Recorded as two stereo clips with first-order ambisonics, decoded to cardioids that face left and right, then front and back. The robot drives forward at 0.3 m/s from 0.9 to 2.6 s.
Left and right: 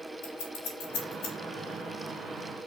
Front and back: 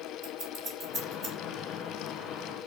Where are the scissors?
115° left, 4 m.